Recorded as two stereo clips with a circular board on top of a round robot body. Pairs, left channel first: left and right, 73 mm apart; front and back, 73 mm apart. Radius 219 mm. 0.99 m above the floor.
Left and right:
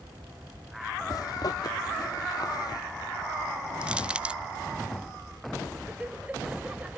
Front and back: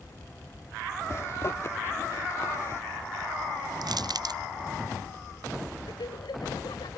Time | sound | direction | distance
1.1 | a zipper | 55° left | ?
3.8 | crushing | 165° right | ?
5.9 | laughter | 15° right | ?